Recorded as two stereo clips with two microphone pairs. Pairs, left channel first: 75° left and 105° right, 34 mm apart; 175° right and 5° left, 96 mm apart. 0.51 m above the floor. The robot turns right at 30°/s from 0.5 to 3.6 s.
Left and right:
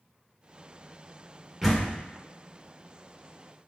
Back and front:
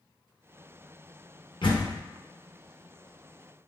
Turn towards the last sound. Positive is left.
turn(degrees=-130)